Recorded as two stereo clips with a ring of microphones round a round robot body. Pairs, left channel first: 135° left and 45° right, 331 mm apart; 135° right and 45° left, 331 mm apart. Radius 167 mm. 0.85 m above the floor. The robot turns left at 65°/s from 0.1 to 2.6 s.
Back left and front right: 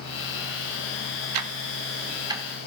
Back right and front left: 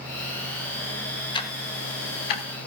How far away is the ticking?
About 0.8 m.